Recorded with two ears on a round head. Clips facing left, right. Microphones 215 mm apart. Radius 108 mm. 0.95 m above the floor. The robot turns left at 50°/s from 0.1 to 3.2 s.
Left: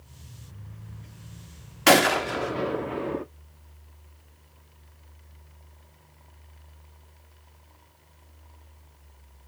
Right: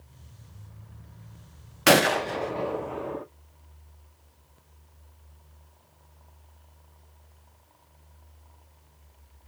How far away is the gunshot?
About 0.7 m.